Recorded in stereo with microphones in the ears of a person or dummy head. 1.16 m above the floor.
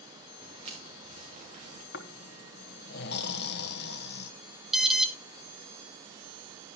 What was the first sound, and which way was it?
Footsteps, 35° right (ahead or behind).